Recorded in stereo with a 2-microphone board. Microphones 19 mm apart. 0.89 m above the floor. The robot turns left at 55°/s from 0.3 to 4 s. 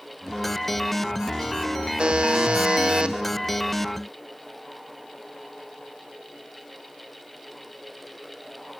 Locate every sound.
2.0 s a buzzer: 60° right, 1.4 m; by 3.2 s 125° right, 1.4 m